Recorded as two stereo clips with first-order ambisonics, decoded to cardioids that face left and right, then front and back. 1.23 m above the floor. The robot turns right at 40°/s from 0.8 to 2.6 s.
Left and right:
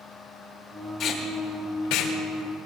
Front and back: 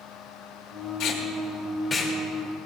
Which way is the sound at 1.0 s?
35° left.